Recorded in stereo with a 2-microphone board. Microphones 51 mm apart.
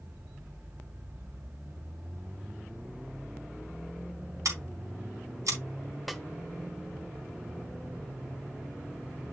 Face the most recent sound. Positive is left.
turn(degrees=0)  # may be behind; listen again after turning